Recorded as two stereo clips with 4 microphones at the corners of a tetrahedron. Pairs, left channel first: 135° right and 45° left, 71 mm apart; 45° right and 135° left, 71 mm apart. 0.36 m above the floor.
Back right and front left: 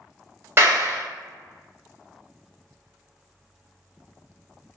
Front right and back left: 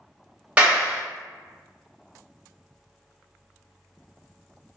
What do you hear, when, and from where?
0.6 s a clap: 75° left, 1.0 m